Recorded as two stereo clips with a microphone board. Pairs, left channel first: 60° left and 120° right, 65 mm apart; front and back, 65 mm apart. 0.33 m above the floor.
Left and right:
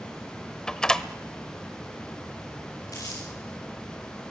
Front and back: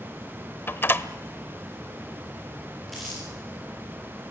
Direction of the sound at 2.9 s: 90° left.